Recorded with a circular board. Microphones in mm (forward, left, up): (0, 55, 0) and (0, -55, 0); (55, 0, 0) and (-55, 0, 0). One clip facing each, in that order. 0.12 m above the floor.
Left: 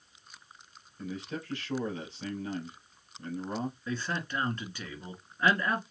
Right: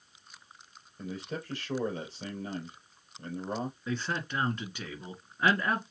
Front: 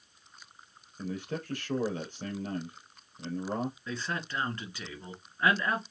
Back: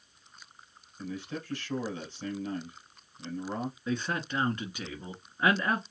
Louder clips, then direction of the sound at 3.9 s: Right 1 dB, back 4 dB; 140° right.